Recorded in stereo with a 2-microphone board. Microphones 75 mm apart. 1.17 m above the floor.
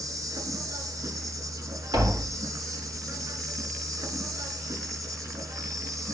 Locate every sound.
0.0 s an insect: 55° right (ahead or behind), 3.5 m
1.9 s tapping: 70° right (ahead or behind), 4 m